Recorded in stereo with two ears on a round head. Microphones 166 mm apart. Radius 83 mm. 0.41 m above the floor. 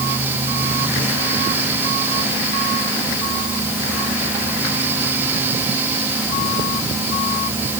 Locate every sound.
Only background noise.